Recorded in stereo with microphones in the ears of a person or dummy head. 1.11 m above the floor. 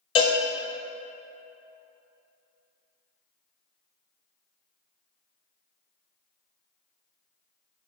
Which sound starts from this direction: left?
A cowbell, at 0.1 s.